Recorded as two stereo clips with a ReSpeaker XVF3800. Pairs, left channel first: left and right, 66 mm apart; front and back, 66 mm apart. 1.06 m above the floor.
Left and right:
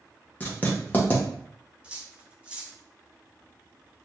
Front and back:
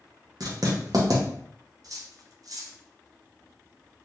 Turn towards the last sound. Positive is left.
turn(degrees=-160)